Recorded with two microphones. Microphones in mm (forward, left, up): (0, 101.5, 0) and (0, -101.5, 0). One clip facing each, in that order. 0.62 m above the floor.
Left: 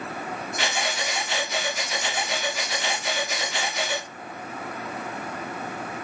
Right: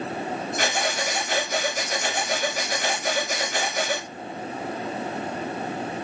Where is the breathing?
45° right (ahead or behind), 0.6 m.